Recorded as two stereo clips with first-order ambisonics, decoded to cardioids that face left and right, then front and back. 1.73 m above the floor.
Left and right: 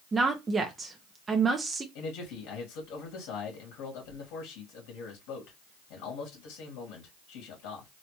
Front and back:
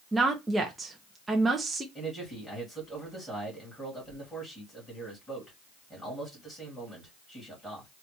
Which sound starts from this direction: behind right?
A woman speaking, at 0.1 s.